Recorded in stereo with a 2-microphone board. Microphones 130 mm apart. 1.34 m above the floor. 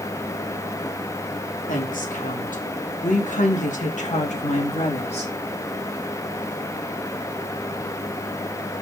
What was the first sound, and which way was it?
A woman speaking, 85° left.